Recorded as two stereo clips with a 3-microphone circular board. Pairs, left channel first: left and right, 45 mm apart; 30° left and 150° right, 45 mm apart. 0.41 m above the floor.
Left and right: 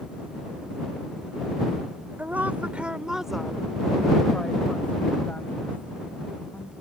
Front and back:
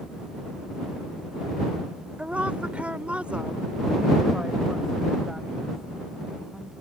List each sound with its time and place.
2.2 s a woman speaking: 105° right; by 6.7 s 125° left